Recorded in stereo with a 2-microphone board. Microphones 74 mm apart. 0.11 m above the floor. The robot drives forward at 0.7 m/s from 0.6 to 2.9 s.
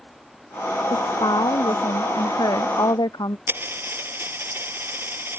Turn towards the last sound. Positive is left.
turn(degrees=-30)  # may be behind; listen again after turning